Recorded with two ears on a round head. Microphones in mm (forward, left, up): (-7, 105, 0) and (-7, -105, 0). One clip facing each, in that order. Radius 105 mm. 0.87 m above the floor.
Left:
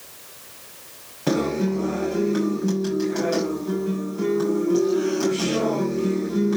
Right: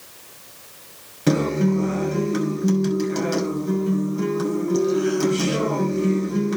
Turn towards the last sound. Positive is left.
turn(degrees=-30)  # may be behind; listen again after turning